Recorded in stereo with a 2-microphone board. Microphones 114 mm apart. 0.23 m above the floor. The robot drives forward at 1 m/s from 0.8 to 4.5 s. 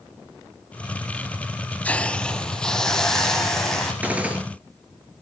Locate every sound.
1.9 s a hiss: 15° left (ahead or behind), 0.6 m; by 3.9 s 5° left (ahead or behind), 2.5 m
4.0 s a gunshot: 15° right (ahead or behind), 1.7 m; by 4.4 s 10° right (ahead or behind), 2 m